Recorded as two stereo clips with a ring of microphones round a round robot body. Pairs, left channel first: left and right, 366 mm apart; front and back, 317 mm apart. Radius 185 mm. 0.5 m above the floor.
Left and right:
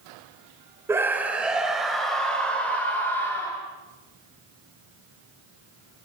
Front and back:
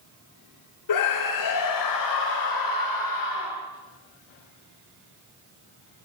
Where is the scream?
5° right, 2 m; by 3.6 s 5° left, 4 m.